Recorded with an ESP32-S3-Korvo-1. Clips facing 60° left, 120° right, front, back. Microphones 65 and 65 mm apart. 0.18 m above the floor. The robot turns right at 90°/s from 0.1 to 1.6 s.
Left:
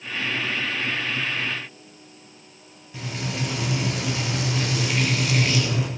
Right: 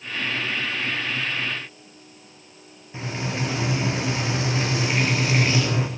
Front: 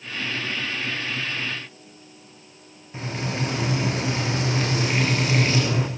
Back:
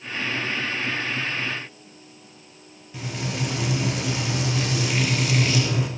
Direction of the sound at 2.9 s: 60° right.